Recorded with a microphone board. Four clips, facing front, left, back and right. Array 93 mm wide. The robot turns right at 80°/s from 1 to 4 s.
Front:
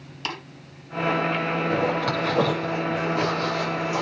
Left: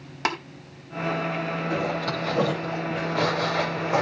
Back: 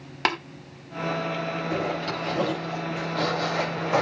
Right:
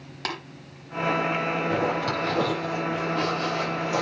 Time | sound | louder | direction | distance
0.2 | tapping | left 6 dB, back 7 dB | 165° left | 3 m
1.7 | a zipper | even, front 5 dB | 40° right | 8 m